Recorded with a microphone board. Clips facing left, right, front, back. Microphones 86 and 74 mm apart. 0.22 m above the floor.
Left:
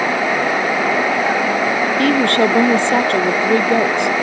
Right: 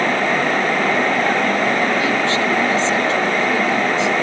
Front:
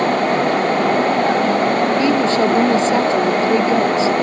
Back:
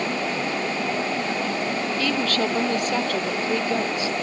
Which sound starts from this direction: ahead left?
A woman speaking, at 2.0 s.